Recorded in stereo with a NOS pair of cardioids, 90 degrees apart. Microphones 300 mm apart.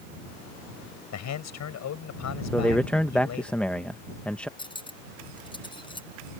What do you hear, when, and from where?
1.1 s a man speaking: 65° left
2.5 s a man speaking: 5° left
4.6 s cutlery clinking: 15° left